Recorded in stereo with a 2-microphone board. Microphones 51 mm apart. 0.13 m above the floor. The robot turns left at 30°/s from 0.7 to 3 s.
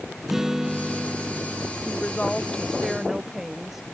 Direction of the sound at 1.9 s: 30° left.